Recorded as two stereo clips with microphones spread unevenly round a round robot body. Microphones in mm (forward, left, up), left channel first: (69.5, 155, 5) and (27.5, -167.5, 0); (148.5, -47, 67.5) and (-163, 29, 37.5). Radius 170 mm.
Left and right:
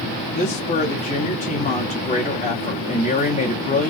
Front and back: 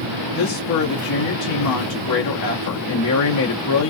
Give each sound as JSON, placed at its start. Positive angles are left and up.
{"t": 0.3, "sound": "a woman speaking", "azimuth_deg": 15, "distance_m": 0.9}